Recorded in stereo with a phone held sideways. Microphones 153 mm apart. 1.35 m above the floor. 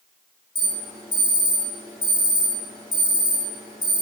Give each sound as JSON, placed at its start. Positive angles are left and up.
{"t": 0.6, "sound": "an alarm", "side_deg": 30, "distance_m": 1.7}